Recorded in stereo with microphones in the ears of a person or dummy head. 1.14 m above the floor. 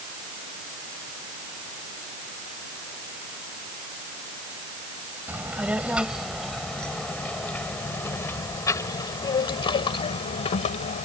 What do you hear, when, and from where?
5.3 s a child speaking: 5° right (ahead or behind); by 11.1 s 40° left (ahead or behind)